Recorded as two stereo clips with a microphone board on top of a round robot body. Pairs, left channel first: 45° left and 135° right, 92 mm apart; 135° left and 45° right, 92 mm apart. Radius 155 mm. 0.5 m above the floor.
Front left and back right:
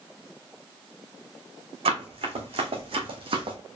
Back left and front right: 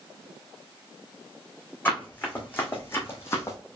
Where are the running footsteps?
150° right, 2.5 m; by 3.6 s 165° right, 1.6 m.